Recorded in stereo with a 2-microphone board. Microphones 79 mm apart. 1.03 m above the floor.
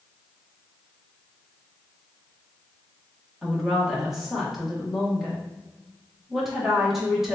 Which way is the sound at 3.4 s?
5° right (ahead or behind).